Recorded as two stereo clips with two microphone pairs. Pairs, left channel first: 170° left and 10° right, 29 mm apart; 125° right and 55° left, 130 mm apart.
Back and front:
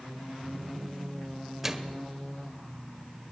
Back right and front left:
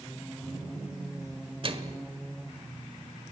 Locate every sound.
1.6 s a microwave: 65° left, 1.5 m